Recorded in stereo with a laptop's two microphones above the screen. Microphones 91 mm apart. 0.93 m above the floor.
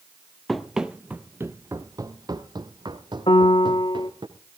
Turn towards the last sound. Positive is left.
turn(degrees=65)  # may be behind; listen again after turning